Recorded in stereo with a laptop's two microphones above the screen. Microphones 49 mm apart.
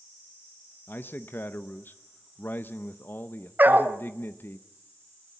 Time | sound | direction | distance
0.9 | a man speaking | 50° left (ahead or behind) | 0.7 m
3.6 | a dog barking | 40° right (ahead or behind) | 1.6 m